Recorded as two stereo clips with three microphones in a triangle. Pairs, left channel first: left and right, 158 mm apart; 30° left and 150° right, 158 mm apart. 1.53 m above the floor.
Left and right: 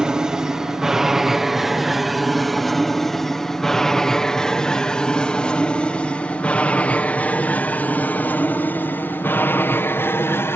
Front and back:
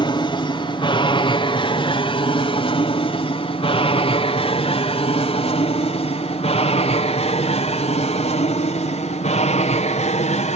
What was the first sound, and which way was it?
An aircraft, 5° right.